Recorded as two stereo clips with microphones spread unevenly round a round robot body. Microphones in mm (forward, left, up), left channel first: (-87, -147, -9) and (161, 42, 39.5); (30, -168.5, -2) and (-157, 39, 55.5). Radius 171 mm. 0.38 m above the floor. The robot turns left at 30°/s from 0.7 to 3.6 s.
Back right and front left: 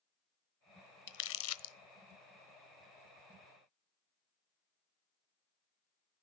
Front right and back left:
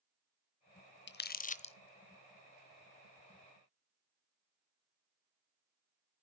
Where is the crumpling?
95° right, 0.8 m; by 1.8 s 115° right, 0.8 m.